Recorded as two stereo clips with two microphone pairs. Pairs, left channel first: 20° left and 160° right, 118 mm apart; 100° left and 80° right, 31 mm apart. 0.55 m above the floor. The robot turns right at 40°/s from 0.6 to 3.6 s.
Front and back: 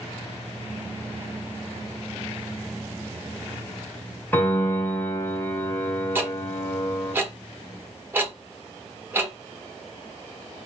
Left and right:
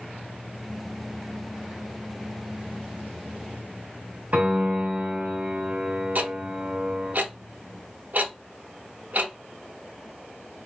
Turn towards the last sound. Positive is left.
turn(degrees=-85)